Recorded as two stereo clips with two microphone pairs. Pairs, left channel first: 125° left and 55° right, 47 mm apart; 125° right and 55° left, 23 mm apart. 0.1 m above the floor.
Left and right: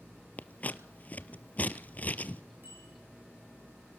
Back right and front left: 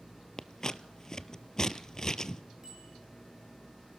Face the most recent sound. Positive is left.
turn(degrees=-15)